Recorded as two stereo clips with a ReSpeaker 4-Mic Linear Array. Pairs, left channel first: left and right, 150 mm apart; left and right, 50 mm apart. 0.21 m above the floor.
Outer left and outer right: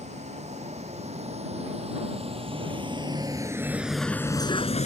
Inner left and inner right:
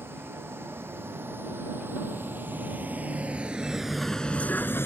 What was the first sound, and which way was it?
A vehicle, 50° right (ahead or behind).